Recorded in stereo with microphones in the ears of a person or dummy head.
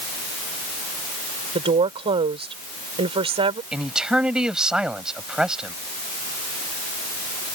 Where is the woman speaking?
30° right (ahead or behind).